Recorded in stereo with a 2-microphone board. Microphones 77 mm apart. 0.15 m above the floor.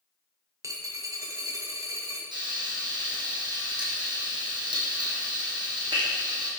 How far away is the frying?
About 2.5 m.